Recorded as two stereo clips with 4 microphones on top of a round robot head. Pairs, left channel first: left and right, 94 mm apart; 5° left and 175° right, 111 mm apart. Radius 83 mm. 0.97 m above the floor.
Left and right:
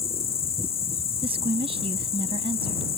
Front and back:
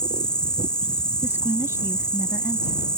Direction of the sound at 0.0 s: 85° left.